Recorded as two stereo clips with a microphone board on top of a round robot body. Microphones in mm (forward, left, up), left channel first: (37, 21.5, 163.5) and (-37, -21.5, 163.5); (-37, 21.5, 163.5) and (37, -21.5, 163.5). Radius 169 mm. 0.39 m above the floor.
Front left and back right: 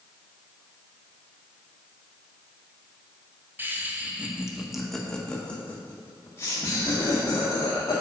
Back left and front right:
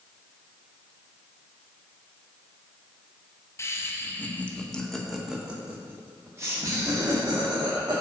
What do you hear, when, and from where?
3.6 s laughter: 165° left, 1.5 m; by 8.0 s 5° right, 2 m